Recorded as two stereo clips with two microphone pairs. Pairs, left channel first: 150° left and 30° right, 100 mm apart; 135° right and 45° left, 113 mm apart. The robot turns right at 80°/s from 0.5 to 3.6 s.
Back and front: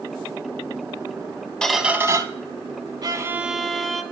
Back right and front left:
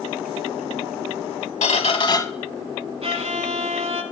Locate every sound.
1.6 s a squeak: 130° right, 0.8 m; by 2.2 s 80° right, 0.8 m
3.0 s a violin: 20° left, 1.0 m; by 4.0 s 65° left, 1.0 m